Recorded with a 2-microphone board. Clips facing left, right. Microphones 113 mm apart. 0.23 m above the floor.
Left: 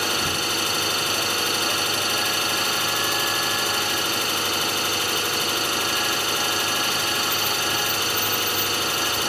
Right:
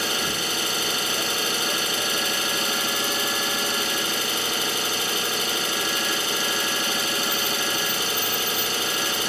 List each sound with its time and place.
0.0 s an engine running: 65° left (ahead or behind), 0.8 m